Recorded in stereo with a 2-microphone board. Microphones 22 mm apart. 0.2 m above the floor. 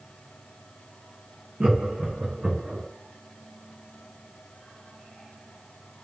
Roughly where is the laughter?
Right.